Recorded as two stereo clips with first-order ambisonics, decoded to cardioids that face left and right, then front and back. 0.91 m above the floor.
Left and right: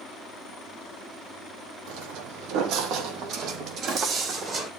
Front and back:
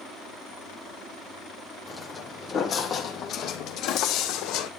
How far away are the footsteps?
About 2 m.